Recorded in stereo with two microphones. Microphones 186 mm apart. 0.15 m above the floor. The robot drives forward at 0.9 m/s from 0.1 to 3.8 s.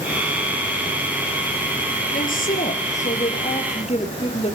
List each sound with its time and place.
2.1 s a woman speaking: 50° left (ahead or behind), 3 m; by 4.5 s 35° left (ahead or behind), 4 m